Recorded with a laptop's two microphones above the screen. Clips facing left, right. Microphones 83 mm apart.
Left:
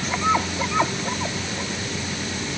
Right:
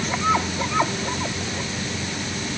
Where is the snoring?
I don't hear snoring.